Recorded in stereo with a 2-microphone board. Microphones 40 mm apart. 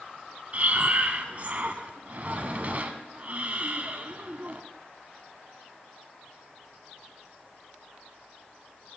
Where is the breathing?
40° right (ahead or behind), 0.5 m.